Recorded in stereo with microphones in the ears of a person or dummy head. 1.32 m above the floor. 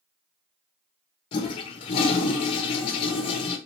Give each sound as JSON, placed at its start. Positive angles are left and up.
{"t": 1.3, "sound": "a toilet flushing", "side_deg": 30, "distance_m": 1.1}